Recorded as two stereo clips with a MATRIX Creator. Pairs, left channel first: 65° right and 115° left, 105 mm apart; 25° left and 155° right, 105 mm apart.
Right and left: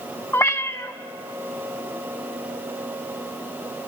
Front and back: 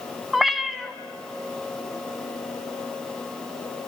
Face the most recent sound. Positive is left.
turn(degrees=-70)